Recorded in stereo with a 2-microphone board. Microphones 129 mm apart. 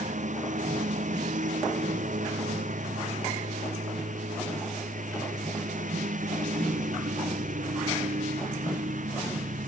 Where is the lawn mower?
75° right (ahead or behind); by 9.7 s 85° right.